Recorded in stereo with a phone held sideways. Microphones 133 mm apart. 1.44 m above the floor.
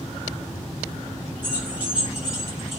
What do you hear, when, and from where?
1.4 s keys jangling: 15° right (ahead or behind), 4 m; by 2.8 s centre (ahead or behind), 5 m